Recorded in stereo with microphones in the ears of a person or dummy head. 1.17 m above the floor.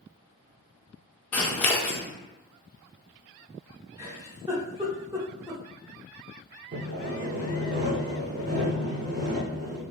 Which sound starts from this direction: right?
Sawing, at 6.7 s.